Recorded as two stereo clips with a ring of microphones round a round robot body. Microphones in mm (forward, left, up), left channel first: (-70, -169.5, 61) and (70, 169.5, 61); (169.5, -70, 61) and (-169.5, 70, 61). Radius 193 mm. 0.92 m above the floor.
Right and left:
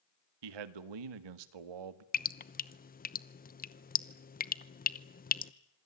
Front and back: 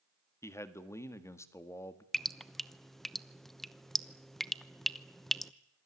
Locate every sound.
0.4 s a man speaking: 60° left, 1.7 m
2.1 s dripping: 110° right, 0.9 m